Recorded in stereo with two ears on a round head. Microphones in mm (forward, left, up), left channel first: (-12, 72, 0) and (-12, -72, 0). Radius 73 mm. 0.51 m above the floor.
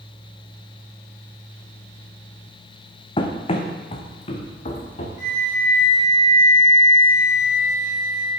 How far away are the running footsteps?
About 1.4 m.